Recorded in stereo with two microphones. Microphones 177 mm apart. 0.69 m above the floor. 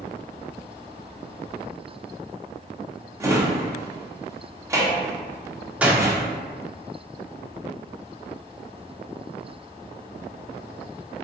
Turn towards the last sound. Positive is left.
turn(degrees=-10)  # may be behind; listen again after turning